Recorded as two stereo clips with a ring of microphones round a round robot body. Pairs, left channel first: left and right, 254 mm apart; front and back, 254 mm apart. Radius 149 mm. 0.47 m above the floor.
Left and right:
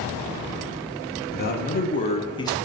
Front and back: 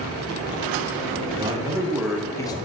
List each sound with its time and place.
1.3 s a man speaking: 120° left, 1.1 m; by 2.5 s 35° left, 0.8 m